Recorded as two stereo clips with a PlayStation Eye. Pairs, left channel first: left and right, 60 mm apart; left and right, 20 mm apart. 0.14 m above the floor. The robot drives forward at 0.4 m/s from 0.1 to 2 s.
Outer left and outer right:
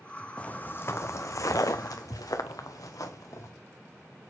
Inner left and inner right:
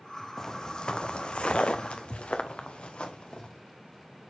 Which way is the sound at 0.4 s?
20° left (ahead or behind).